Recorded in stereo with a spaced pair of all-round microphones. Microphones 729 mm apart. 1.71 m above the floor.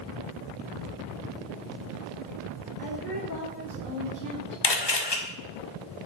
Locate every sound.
2.8 s a woman speaking: 90° right, 3 m; by 4.6 s 70° right (ahead or behind), 1.4 m
4.6 s a camera shutter: 35° left (ahead or behind), 0.9 m